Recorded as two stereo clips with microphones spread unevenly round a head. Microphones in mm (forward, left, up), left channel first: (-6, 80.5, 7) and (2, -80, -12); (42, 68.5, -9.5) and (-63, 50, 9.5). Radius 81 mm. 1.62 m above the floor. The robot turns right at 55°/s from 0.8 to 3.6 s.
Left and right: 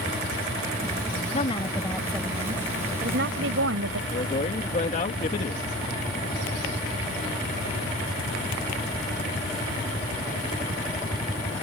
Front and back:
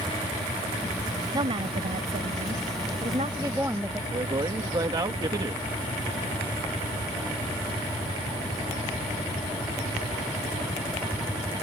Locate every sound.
1.3 s a woman speaking: 140° left; by 4.0 s 95° right
4.1 s a man speaking: 140° left